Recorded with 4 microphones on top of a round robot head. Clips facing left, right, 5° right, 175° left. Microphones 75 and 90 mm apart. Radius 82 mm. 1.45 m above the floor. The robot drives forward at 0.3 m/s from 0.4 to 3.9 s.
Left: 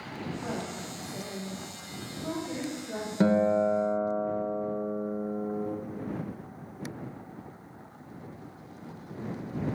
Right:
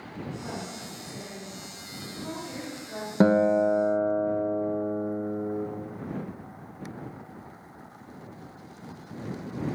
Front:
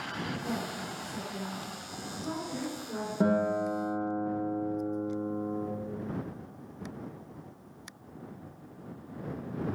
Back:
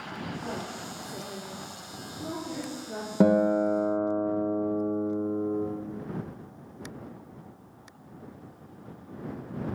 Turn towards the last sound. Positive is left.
turn(degrees=-150)